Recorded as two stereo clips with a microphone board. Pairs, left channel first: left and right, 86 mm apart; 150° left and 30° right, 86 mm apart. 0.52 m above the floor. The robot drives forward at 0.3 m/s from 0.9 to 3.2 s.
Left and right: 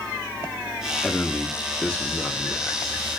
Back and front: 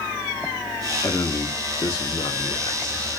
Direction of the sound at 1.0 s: 150° left.